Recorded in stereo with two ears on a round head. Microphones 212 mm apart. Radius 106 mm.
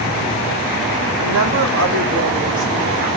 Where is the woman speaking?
60° right (ahead or behind), 3.5 m.